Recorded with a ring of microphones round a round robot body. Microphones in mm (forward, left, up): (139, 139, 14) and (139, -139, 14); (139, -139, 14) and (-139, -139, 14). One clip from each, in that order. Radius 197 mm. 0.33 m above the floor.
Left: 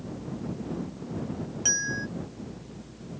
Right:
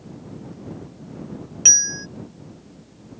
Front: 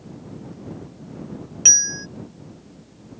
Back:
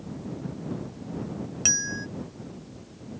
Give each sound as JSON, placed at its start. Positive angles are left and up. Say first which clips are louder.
{"t": 1.6, "sound": "a bell", "louder": "right 12 dB, front 10 dB", "azimuth_deg": -75}